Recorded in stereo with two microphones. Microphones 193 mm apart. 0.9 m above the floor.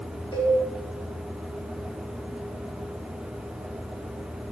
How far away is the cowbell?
About 0.9 m.